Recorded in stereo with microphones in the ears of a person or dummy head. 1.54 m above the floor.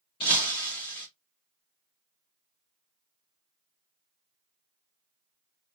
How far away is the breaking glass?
About 0.8 m.